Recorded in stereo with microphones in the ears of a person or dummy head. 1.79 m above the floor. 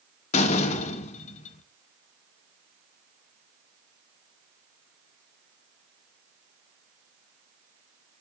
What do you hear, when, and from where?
0.3 s a door slam: 40° left (ahead or behind), 1.8 m